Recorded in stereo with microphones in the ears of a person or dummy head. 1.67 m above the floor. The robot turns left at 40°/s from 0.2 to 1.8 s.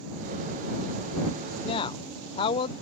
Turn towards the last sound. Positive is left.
turn(degrees=30)  # may be behind; listen again after turning